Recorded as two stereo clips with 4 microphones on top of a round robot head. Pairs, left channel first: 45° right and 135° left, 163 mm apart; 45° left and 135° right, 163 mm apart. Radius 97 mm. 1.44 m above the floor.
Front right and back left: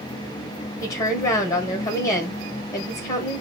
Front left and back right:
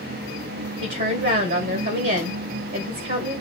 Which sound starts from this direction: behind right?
A woman speaking, at 0.8 s.